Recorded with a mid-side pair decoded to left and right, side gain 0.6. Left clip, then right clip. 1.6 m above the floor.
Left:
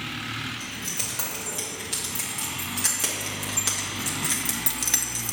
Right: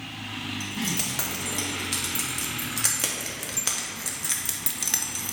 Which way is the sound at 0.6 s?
25° right.